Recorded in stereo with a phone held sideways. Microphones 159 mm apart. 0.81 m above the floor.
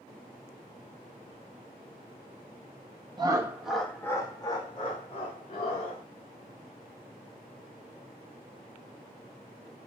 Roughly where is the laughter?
Right.